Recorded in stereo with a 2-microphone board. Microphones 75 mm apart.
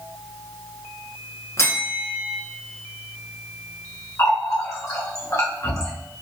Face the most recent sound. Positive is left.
turn(degrees=45)  # may be behind; listen again after turning